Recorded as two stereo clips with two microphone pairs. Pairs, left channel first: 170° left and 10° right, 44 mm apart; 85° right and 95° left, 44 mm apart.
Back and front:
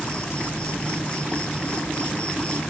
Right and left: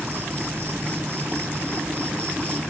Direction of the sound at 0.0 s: 110° left.